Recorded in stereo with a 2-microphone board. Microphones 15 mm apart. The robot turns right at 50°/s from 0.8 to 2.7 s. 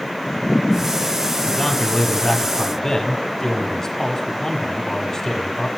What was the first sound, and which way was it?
A man speaking, 60° left.